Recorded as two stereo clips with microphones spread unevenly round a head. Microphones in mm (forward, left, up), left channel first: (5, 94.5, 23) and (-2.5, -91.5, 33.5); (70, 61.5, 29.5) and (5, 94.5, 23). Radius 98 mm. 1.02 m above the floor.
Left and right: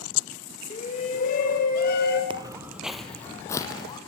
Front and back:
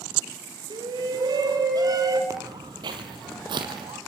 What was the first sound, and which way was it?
A shout, 145° left.